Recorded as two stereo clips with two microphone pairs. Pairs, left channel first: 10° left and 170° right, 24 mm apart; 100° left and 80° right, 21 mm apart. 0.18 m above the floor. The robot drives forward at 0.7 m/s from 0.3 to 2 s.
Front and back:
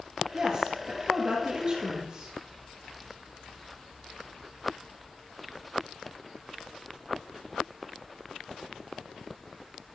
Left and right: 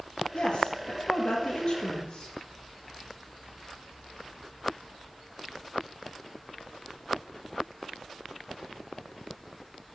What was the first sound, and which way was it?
A woman speaking, 115° left.